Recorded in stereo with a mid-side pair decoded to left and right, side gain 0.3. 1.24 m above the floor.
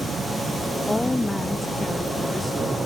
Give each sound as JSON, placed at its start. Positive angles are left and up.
{"t": 0.9, "sound": "a woman speaking", "azimuth_deg": 25}